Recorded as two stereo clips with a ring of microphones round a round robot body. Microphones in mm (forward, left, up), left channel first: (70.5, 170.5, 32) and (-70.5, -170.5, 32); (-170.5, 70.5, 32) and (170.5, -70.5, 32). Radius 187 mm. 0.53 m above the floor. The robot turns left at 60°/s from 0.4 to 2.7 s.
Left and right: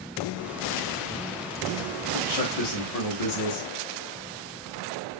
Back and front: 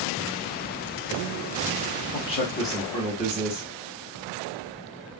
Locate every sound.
2.1 s a man speaking: 100° left, 1.3 m; by 3.7 s 65° left, 1.3 m